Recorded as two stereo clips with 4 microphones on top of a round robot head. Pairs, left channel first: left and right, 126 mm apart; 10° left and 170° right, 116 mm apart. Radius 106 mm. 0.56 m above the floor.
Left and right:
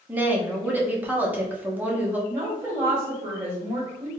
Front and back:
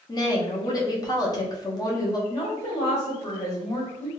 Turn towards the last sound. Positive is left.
turn(degrees=-15)